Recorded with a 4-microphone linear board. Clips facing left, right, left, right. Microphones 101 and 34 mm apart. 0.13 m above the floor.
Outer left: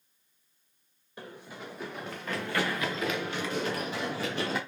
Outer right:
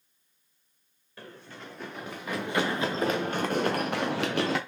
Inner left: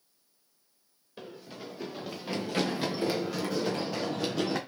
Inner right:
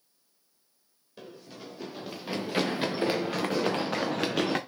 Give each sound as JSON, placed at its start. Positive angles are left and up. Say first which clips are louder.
{"t": 1.2, "sound": "running footsteps", "louder": "outer left 2 dB, inner left 1 dB", "side_deg": 15, "distance_m": 1.2}